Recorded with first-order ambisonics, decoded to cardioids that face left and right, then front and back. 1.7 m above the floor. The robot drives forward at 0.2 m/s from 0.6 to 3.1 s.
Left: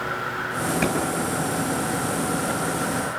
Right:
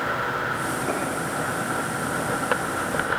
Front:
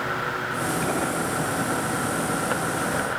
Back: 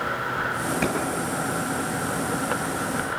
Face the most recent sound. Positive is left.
turn(degrees=125)